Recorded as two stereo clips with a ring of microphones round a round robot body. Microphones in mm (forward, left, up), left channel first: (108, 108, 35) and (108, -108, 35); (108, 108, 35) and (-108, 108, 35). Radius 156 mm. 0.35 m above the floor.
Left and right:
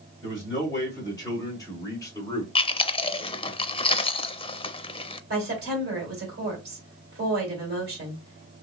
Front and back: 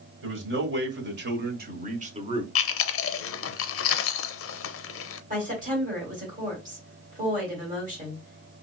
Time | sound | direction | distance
0.2 | a man speaking | 165° left | 1.8 m
2.5 | chewing | 20° left | 0.5 m
5.3 | a woman speaking | 130° right | 2 m